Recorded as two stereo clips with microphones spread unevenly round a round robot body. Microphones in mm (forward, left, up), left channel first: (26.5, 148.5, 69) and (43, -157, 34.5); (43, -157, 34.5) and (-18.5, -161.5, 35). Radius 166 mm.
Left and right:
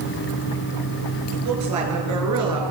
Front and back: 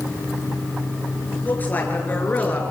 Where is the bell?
I don't hear a bell.